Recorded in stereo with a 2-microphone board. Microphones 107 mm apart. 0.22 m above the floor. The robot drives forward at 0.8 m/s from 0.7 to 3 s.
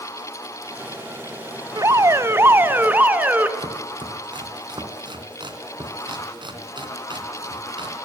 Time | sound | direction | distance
1.8 | an alarm | 30° right (ahead or behind) | 0.7 m
3.6 | chopping | 50° right (ahead or behind) | 3 m